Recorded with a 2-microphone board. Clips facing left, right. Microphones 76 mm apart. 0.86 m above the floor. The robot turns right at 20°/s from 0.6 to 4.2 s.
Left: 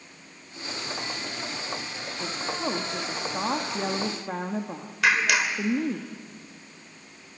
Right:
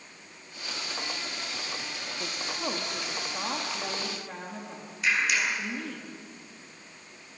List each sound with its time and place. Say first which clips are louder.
2.2 s a woman speaking: left 5 dB; straight ahead, 1.4 m; by 6.0 s 40° left, 1.4 m
5.0 s a clap: left 4 dB; 80° left, 3 m